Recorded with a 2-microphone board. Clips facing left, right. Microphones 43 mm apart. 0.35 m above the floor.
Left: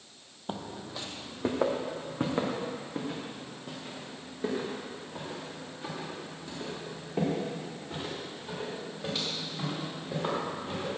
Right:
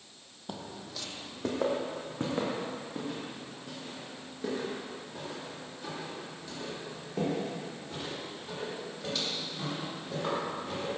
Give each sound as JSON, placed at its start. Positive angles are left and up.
{"t": 0.5, "sound": "footsteps", "side_deg": 30, "distance_m": 0.6}